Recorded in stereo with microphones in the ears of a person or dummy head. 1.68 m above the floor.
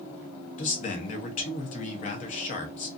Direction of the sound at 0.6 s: 40° left (ahead or behind).